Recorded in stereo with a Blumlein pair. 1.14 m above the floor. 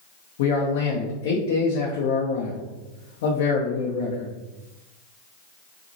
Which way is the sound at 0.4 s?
55° left.